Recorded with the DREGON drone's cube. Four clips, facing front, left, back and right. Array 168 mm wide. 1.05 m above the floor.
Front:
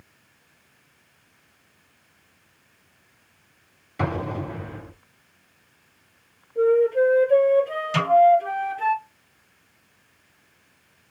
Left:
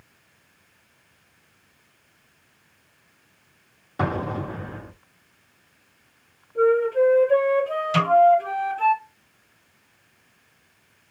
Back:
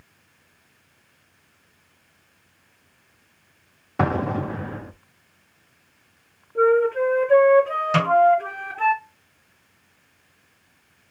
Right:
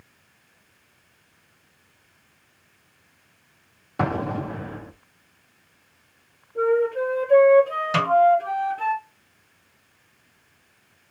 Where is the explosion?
160° right, 1.1 m.